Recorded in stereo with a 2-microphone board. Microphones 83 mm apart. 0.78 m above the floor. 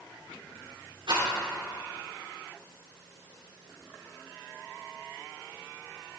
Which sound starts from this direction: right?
A rattle, at 1.1 s.